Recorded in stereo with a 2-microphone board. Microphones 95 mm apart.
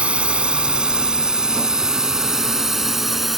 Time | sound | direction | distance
0.0 | a drone | 10° right (ahead or behind) | ?